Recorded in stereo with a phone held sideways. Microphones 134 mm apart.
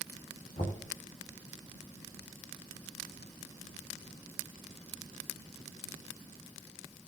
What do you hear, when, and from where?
0.6 s knocking: 60° left (ahead or behind), 8 m